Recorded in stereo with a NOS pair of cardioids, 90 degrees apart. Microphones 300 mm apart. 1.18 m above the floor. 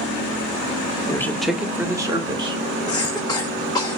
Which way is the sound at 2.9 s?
15° left.